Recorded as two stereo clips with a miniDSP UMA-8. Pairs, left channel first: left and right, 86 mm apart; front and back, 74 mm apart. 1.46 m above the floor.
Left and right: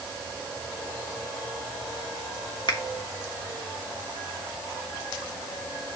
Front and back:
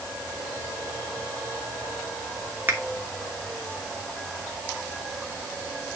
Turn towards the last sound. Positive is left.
turn(degrees=115)